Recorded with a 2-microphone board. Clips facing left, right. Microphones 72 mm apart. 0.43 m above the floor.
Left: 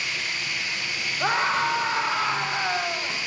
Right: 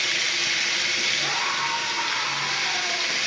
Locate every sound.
0.0 s running water: 80° right, 4.5 m
1.2 s a scream: 50° left (ahead or behind), 2.5 m